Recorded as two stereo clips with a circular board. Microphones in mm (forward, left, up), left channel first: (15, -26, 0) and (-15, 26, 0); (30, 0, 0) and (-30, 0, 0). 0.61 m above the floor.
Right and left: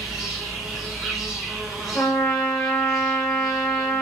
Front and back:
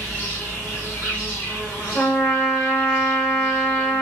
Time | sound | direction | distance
0.0 | an insect | 35° left | 1.9 m
1.9 | a trumpet | 25° right | 1.2 m